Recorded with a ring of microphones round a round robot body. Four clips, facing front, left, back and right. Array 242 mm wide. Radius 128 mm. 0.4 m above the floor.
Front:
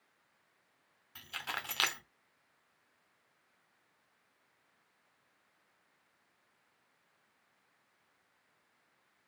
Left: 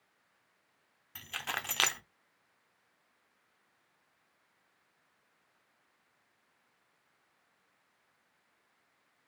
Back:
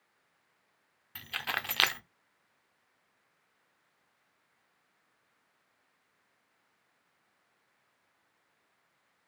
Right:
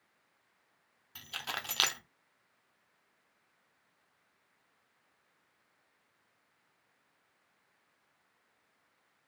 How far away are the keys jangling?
About 0.5 m.